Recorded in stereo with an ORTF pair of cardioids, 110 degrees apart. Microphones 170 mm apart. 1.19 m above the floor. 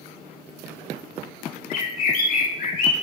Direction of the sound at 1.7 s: 55° left.